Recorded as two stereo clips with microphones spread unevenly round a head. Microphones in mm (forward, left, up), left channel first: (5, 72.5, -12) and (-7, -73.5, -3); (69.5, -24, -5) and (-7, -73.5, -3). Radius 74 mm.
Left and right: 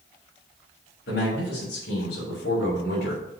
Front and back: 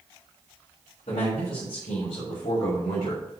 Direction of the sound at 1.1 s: 75° left.